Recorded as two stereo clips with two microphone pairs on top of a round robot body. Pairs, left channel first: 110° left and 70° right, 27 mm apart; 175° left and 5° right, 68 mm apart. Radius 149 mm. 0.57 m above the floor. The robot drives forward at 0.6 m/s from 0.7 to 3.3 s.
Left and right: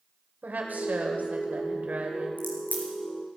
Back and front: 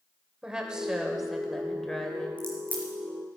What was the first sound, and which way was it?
A woman speaking, 85° right.